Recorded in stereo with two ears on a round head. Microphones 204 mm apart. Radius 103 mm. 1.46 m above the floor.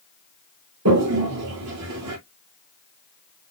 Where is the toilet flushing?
80° right, 1.9 m.